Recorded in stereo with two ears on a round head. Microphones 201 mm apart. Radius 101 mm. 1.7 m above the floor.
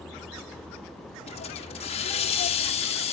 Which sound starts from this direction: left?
A hiss, at 1.3 s.